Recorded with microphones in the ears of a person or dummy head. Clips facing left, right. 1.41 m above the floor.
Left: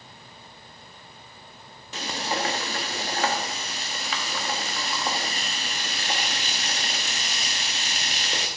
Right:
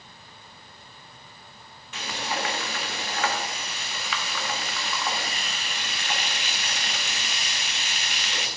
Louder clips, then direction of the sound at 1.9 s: Left 2 dB; 25° left (ahead or behind).